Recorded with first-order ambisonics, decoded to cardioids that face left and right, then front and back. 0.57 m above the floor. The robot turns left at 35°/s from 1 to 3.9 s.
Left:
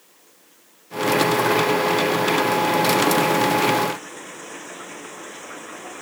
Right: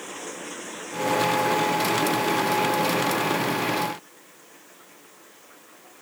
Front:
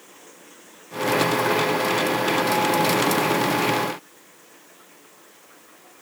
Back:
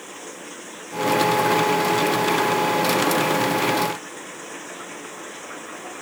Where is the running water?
125° right; by 6.0 s 135° left.